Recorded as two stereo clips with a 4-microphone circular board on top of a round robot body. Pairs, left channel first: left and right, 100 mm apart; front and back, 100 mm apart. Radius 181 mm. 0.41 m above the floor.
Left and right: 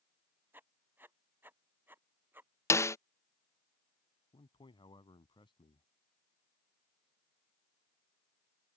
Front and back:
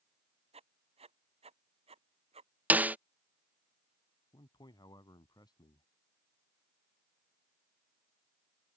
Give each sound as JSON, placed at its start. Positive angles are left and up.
{"t": 0.5, "sound": "writing", "azimuth_deg": -160}
{"t": 2.7, "sound": "a snare drum", "azimuth_deg": 120}
{"t": 4.3, "sound": "a man speaking", "azimuth_deg": 50}